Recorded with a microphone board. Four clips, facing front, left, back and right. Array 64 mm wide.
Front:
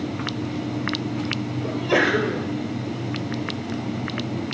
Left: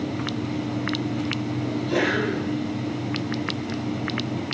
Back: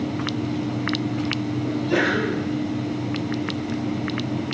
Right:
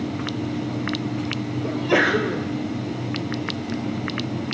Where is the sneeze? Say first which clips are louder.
Right 5 dB, front 2 dB; 45° right, 2.5 m.